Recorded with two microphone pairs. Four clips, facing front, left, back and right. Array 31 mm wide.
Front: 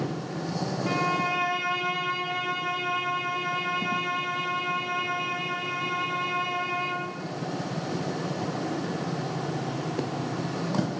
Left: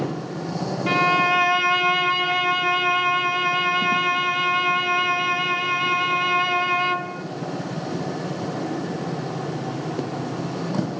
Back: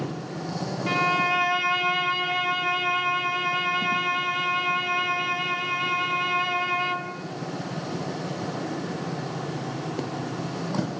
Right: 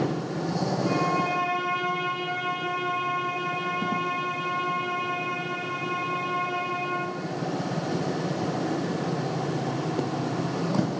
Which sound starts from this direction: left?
A violin, at 0.9 s.